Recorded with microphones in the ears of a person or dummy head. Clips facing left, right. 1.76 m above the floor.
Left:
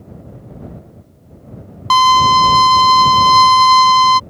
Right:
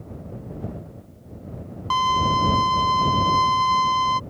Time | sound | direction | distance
1.9 | a violin | 75° left (ahead or behind) | ?